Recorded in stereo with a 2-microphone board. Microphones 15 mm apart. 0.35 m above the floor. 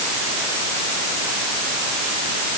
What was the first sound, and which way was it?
Only background noise.